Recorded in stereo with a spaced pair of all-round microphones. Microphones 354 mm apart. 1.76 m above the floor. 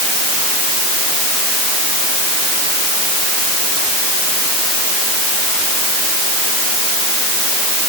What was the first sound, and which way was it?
Only background noise.